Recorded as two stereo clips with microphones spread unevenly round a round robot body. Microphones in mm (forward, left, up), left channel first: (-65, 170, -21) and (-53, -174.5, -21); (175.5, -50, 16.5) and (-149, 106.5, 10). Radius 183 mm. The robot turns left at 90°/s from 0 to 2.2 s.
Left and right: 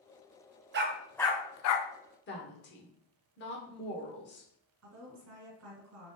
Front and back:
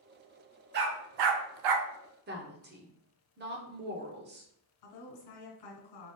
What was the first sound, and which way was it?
A dog barking, 145° right.